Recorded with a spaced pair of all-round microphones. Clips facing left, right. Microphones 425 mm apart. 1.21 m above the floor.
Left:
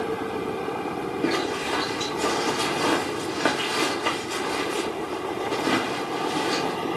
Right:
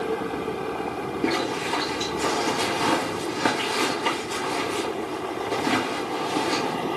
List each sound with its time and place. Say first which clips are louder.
1.2 s a zipper: right 1 dB; 15° right (ahead or behind), 2 m